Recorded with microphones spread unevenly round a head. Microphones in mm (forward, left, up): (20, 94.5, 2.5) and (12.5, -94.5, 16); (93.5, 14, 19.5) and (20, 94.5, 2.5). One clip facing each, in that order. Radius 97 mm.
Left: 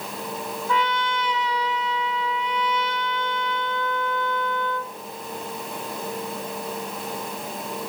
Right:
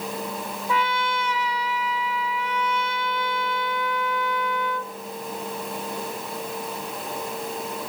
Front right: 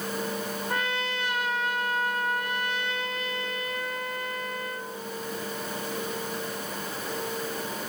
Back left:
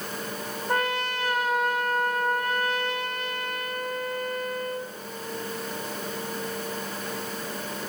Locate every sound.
0.7 s a trumpet: 175° right, 1.3 m